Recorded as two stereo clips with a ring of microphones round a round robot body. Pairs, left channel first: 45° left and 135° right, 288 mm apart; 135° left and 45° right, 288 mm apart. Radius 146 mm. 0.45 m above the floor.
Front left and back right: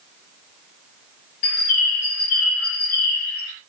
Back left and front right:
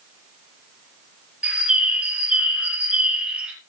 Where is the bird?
40° left, 3 m.